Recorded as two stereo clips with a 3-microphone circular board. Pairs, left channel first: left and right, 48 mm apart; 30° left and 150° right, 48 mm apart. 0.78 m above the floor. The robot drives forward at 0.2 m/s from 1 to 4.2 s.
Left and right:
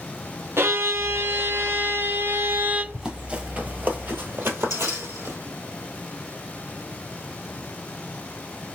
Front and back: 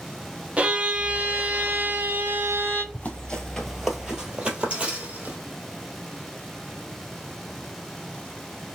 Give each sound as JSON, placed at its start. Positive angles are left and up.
{"t": 0.6, "sound": "a violin", "azimuth_deg": -90, "distance_m": 0.6}
{"t": 2.9, "sound": "running footsteps", "azimuth_deg": -20, "distance_m": 1.1}